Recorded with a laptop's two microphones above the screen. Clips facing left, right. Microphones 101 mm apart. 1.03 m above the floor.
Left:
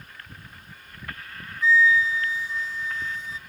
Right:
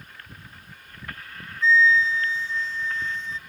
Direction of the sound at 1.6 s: 10° left (ahead or behind).